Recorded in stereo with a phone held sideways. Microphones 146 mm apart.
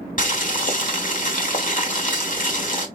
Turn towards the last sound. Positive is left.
turn(degrees=60)  # may be behind; listen again after turning